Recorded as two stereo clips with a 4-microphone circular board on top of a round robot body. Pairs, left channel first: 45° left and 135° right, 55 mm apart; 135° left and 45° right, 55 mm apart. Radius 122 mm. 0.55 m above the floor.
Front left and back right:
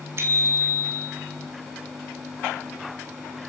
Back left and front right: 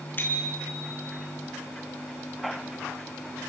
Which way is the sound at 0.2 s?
170° right.